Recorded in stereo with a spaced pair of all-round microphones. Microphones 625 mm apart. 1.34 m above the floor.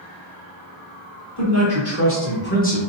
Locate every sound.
1.4 s a man speaking: 25° left (ahead or behind), 1.6 m; by 2.8 s 10° left (ahead or behind), 0.9 m